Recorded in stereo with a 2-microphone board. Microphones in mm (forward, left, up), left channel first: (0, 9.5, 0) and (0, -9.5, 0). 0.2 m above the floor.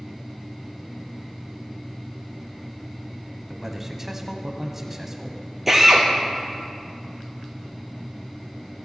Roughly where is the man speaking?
Centre.